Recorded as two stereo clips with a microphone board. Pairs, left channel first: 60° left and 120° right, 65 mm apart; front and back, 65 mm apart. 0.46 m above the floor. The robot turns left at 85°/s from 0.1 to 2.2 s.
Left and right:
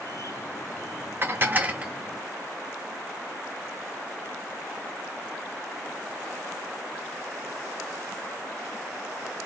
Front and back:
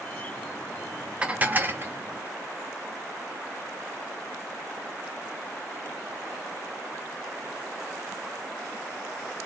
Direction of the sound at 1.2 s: 120° right.